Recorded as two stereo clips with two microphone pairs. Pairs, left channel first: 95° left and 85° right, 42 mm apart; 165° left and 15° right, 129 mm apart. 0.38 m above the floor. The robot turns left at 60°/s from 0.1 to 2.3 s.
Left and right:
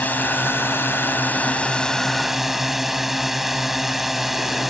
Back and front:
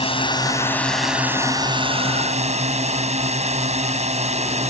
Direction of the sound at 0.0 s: 130° left.